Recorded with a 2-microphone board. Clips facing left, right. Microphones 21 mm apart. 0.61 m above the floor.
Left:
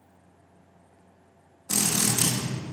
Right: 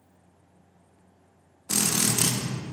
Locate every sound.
1.7 s a drill: 25° right (ahead or behind), 0.8 m